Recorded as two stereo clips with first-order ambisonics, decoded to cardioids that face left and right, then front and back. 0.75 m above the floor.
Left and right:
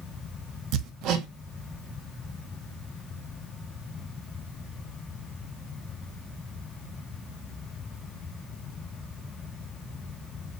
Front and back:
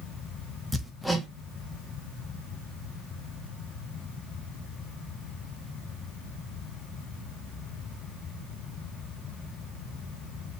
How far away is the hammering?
About 0.8 m.